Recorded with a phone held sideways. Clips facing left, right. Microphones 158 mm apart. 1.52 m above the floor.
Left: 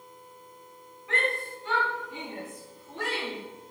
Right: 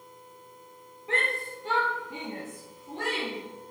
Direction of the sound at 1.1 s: 30° right (ahead or behind).